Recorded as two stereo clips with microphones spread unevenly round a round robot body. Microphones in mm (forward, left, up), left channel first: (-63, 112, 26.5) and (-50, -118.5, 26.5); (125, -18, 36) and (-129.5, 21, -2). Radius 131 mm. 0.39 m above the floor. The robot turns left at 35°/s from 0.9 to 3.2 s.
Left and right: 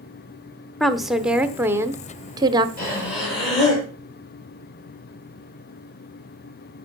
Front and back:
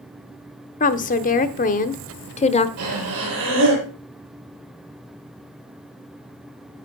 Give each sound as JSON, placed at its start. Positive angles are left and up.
{"t": 0.8, "sound": "a woman speaking", "azimuth_deg": 5, "distance_m": 0.8}
{"t": 2.8, "sound": "breathing", "azimuth_deg": 145, "distance_m": 6.5}